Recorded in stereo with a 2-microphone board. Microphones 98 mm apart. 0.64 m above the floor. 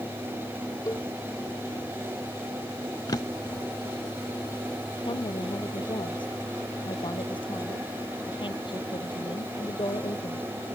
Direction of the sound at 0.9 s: 35° left (ahead or behind).